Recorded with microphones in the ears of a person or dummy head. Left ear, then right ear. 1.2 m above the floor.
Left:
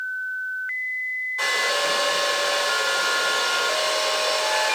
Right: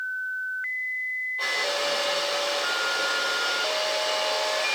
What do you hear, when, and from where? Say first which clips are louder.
1.4 s a hair dryer: left 5 dB; 55° left (ahead or behind), 4.5 m